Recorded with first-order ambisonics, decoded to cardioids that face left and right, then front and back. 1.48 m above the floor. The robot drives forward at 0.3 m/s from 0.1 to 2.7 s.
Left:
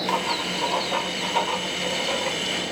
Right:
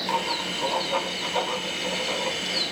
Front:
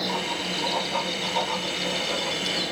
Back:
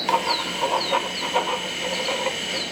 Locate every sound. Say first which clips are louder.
0.1 s writing: left 1 dB, back 6 dB; 165° left, 0.6 m; by 2.6 s 175° left, 1.3 m